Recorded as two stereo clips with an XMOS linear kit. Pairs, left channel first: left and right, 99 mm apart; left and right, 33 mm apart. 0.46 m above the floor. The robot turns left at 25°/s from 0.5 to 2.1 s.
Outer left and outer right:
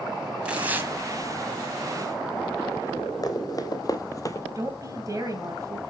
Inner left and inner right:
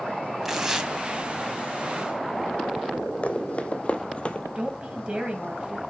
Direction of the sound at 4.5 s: 35° right (ahead or behind).